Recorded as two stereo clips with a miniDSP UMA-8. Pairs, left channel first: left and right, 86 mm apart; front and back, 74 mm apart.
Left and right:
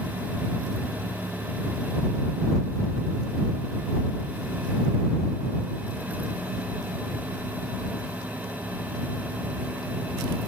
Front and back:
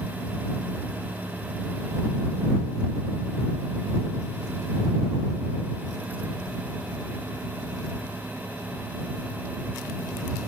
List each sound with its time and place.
Only background noise.